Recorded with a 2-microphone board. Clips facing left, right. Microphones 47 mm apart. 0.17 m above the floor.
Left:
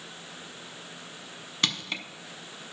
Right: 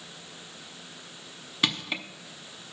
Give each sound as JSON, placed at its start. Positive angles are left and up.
{"t": 1.6, "sound": "crushing", "side_deg": -10, "distance_m": 0.7}